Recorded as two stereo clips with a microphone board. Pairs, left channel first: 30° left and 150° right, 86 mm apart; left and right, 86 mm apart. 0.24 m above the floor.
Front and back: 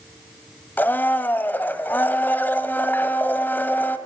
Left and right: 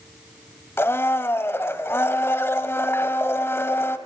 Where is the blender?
70° left, 0.8 m.